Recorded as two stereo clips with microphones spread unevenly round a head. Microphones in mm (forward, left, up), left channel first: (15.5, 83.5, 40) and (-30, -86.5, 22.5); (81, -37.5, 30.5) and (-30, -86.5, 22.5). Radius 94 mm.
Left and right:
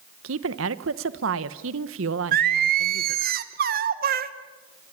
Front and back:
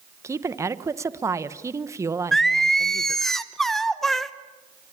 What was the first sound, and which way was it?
A woman speaking, 90° right.